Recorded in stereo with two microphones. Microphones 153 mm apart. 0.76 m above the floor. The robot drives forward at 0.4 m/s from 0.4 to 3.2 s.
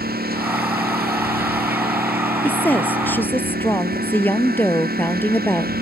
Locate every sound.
0.0 s a lawn mower: 90° right
2.4 s a woman speaking: 10° left (ahead or behind)